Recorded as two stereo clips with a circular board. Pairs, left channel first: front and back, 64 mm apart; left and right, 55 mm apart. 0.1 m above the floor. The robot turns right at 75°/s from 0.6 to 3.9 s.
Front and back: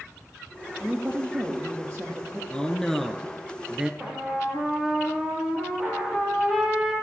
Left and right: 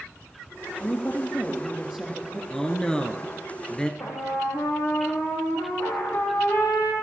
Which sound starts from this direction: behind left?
A woman speaking, at 0.8 s.